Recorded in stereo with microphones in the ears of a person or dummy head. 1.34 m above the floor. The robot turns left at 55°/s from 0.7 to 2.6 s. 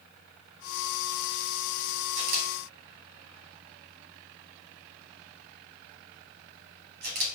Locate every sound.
2.2 s a camera shutter: 65° right (ahead or behind), 1.3 m; by 7.3 s 50° right (ahead or behind), 1.3 m